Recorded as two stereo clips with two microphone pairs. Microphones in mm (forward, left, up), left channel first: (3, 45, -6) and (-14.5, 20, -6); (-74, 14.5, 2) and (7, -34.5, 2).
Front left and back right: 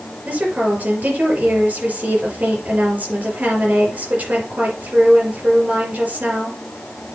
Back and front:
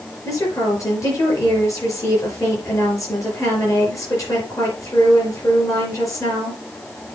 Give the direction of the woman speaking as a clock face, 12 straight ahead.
5 o'clock.